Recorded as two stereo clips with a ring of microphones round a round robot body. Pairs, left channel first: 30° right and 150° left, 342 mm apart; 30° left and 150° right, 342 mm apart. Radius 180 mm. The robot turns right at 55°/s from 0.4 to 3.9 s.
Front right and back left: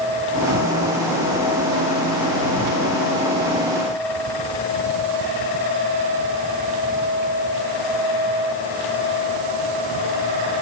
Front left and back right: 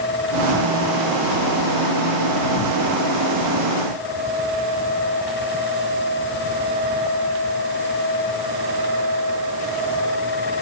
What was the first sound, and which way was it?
Only background noise.